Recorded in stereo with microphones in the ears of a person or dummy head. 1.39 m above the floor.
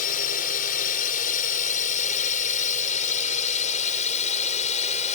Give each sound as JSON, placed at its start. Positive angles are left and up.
{"t": 0.0, "sound": "a drone", "side_deg": 45}